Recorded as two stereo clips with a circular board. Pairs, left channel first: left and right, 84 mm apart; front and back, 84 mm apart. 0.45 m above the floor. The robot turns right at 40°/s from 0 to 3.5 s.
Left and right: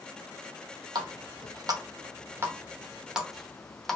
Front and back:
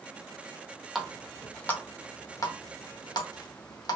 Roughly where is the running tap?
Right.